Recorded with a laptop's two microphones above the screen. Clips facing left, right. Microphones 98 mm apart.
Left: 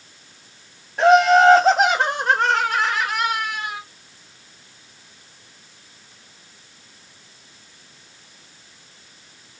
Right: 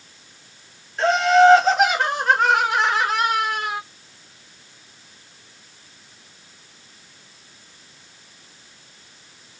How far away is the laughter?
About 0.9 m.